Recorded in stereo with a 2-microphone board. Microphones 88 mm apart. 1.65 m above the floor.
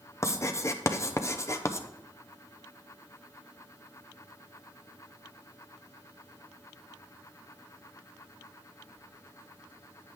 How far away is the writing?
About 0.6 m.